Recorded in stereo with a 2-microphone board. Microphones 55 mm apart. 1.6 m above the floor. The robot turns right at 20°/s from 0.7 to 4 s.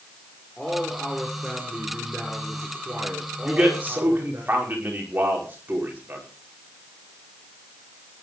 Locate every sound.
0.6 s a man speaking: 170° left, 6 m; by 4.4 s 125° right, 6 m
3.4 s a man speaking: 20° right (ahead or behind), 5.5 m; by 6.2 s 35° right (ahead or behind), 5.5 m